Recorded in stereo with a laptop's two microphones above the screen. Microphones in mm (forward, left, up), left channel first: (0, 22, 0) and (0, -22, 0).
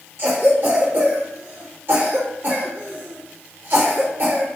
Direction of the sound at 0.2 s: 50° right (ahead or behind).